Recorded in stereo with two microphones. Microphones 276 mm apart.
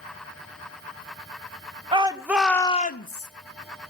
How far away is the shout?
About 1.1 m.